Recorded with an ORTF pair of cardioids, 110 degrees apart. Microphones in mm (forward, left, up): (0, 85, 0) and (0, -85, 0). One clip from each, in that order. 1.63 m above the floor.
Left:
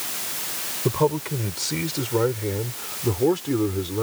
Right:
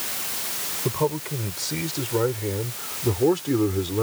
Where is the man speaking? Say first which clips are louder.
Left 4 dB; 20° left; by 4.0 s 10° right.